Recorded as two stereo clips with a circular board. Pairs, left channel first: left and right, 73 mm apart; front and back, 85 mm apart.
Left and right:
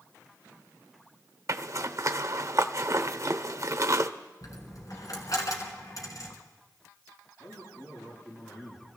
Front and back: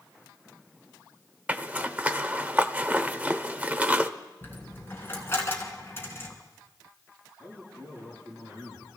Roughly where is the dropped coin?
Ahead left.